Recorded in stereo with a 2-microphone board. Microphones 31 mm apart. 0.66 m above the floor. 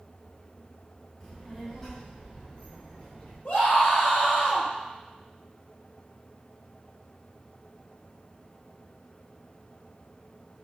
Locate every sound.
1.2 s a child speaking: 40° left (ahead or behind), 1.7 m; by 3.4 s 45° left (ahead or behind), 4 m
3.5 s a scream: 60° left (ahead or behind), 3 m